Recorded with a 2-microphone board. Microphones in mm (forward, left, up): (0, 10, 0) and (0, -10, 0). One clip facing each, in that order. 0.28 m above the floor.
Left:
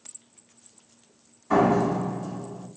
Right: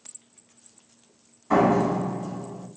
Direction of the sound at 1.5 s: 10° right (ahead or behind).